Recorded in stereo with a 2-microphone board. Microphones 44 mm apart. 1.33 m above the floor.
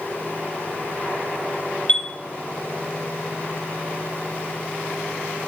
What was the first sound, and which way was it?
A chime, 20° left (ahead or behind).